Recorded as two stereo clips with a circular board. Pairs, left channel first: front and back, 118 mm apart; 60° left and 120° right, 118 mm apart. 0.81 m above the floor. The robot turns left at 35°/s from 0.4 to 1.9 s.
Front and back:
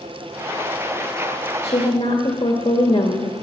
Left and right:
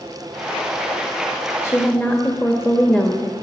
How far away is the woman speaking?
About 1.5 m.